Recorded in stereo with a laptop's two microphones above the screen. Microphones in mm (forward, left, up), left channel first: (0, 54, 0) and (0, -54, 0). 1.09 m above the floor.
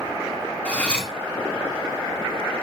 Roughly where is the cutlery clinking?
Centre.